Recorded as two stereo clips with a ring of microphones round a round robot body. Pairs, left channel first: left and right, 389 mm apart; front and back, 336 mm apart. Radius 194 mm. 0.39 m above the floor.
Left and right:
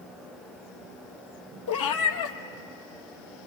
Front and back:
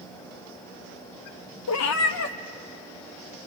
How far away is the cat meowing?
About 1.3 m.